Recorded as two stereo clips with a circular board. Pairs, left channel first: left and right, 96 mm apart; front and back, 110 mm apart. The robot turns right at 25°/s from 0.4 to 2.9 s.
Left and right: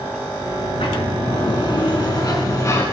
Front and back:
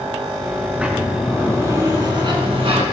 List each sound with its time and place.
0.6 s a sliding door: 95° left, 4 m; by 2.8 s 150° left, 4 m